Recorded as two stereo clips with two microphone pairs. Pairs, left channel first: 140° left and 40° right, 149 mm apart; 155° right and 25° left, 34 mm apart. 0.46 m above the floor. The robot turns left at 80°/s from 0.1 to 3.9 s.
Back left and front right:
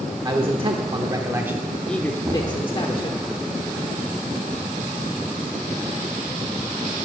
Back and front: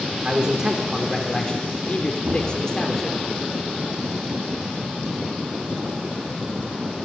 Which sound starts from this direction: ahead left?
Knocking, at 2.2 s.